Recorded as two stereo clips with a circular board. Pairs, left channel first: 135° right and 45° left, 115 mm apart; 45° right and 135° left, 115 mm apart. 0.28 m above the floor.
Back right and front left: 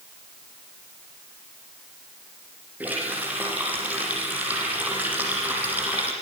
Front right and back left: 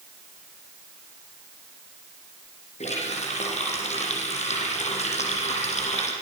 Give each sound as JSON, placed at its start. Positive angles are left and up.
{"t": 2.8, "sound": "a running tap", "azimuth_deg": -30, "distance_m": 8.5}